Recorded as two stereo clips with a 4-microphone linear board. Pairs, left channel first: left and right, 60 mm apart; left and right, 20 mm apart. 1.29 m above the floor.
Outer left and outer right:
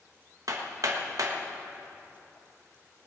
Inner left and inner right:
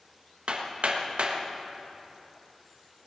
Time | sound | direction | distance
0.5 | hammering | 70° right (ahead or behind) | 1.3 m